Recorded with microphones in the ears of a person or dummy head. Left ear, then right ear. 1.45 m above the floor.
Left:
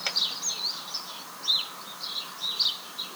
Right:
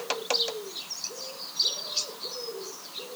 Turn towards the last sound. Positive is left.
No sound to turn to.